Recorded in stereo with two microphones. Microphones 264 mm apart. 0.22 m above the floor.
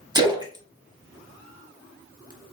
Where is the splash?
15° right (ahead or behind), 0.7 m.